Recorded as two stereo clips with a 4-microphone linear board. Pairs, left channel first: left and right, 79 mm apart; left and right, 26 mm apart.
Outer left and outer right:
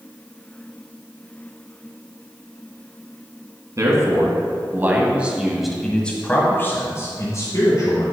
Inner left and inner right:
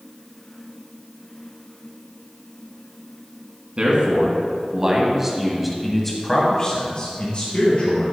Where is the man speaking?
40° right (ahead or behind), 2 m; by 8.0 s 50° left (ahead or behind), 2 m.